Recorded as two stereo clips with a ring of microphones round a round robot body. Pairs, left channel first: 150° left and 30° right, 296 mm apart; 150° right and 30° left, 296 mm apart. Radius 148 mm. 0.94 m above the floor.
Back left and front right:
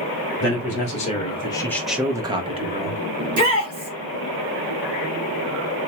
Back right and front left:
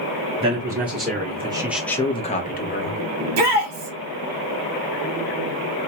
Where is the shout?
35° left, 2 m.